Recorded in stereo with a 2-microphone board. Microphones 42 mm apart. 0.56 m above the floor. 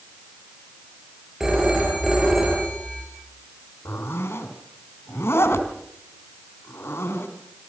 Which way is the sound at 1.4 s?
10° right (ahead or behind).